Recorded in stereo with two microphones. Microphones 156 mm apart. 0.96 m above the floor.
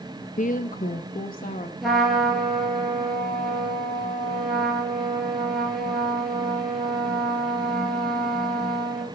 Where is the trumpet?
Centre (ahead or behind), 3 m.